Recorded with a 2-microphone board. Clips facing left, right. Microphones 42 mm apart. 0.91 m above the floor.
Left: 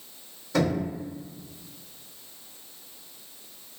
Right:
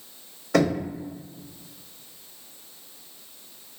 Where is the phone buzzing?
I don't hear a phone buzzing.